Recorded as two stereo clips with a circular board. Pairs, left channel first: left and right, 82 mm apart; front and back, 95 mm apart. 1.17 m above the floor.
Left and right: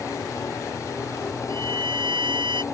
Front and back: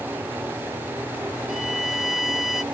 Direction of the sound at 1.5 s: 90° right.